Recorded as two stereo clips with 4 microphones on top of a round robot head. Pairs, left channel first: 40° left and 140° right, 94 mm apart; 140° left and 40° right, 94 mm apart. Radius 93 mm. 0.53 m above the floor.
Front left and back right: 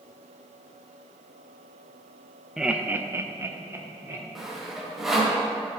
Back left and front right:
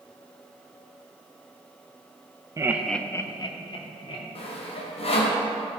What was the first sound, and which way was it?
Laughter, 55° right.